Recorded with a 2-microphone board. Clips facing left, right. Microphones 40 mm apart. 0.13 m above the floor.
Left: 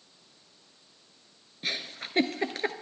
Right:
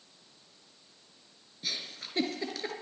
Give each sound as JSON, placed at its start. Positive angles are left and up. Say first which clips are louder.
{"t": 1.6, "sound": "a giggle", "louder": "left 4 dB", "side_deg": 40, "distance_m": 0.9}